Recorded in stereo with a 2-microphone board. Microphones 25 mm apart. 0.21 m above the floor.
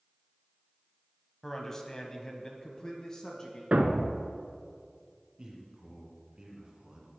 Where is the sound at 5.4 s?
30° right (ahead or behind), 2 m.